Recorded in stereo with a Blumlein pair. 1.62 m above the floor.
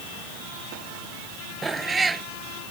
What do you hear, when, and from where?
1.6 s a cat meowing: 10° right